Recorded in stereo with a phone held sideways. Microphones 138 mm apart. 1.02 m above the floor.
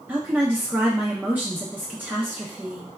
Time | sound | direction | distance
0.1 | a woman speaking | 15° right (ahead or behind) | 0.5 m